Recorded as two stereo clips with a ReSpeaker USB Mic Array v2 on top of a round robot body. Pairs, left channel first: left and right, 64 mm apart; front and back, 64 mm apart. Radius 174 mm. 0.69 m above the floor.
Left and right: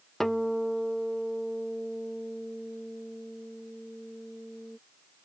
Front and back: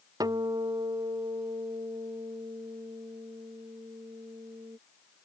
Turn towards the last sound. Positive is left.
turn(degrees=175)